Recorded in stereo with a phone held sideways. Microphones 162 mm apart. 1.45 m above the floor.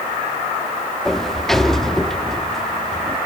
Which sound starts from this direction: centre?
A sliding door, at 1.1 s.